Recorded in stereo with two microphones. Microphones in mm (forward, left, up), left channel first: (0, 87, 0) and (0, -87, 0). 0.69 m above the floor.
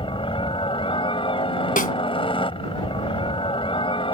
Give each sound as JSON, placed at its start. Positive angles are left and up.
{"t": 0.0, "sound": "a helicopter", "side_deg": 30}
{"t": 1.8, "sound": "a snare drum", "side_deg": 55}